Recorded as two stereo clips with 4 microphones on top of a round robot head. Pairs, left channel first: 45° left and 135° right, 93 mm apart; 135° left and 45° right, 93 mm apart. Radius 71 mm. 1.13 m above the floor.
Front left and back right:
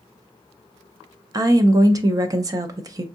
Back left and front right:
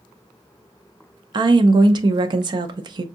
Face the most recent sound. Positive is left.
turn(degrees=-85)